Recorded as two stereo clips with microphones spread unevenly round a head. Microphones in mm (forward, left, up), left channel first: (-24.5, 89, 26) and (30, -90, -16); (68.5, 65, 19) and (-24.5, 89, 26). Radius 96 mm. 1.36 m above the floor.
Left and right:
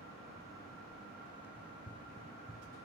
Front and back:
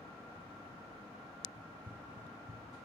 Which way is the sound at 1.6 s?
105° left.